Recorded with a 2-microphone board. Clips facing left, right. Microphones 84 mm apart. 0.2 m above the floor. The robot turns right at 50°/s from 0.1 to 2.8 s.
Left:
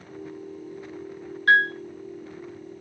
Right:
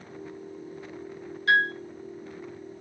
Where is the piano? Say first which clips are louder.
Left 4 dB; 55° left (ahead or behind), 1.0 m; by 1.7 s 45° left (ahead or behind), 1.0 m.